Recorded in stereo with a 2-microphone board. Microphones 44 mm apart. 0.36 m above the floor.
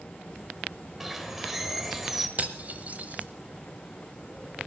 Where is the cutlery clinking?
35° right (ahead or behind), 1.1 m.